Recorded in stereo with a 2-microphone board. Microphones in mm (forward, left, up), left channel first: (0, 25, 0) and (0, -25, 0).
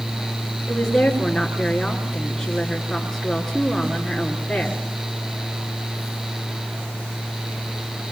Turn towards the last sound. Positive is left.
turn(degrees=5)  # may be behind; listen again after turning